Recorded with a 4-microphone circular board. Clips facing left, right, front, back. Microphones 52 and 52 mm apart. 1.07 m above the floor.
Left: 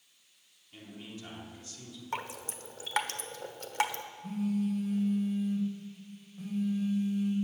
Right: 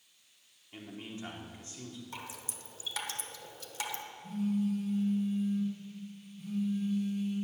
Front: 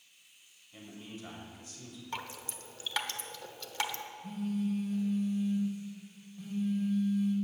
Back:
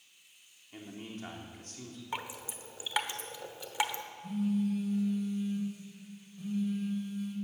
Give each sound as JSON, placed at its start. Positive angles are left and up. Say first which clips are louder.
{"t": 0.7, "sound": "a man speaking", "louder": "right 2 dB, back 3 dB", "azimuth_deg": -150, "distance_m": 3.0}
{"t": 2.1, "sound": "dripping", "louder": "left 7 dB, back 2 dB", "azimuth_deg": 110, "distance_m": 1.0}
{"t": 4.2, "sound": "a phone buzzing", "louder": "even, back 3 dB", "azimuth_deg": 100, "distance_m": 4.5}